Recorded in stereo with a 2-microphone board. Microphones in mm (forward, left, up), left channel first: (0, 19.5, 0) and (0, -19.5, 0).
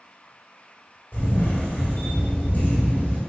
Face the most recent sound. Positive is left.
turn(degrees=55)  # may be behind; listen again after turning